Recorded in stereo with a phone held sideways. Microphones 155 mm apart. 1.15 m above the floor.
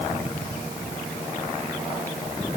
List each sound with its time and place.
Only background noise.